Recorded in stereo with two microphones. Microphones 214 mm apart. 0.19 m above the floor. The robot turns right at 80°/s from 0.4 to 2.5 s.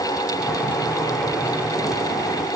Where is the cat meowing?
No cat meowing in this recording.